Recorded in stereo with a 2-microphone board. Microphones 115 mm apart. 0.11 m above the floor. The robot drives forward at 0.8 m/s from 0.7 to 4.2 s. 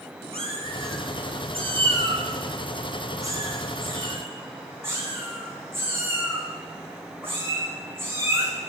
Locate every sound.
0.3 s a cat meowing: 60° right (ahead or behind), 1.1 m; by 8.5 s 20° right (ahead or behind), 3 m